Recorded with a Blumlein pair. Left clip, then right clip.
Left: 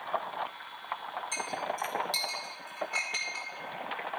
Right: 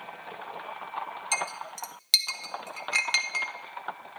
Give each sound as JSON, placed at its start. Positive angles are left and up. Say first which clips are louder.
{"t": 1.3, "sound": "a clink", "louder": "right 3 dB", "azimuth_deg": -55, "distance_m": 1.2}